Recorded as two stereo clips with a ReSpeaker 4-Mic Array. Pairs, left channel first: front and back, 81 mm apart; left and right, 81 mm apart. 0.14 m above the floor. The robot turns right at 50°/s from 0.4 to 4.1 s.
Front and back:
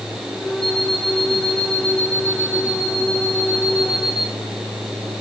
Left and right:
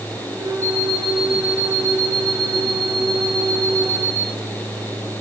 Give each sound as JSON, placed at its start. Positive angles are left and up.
{"t": 0.6, "sound": "an alarm clock", "azimuth_deg": 155, "distance_m": 3.0}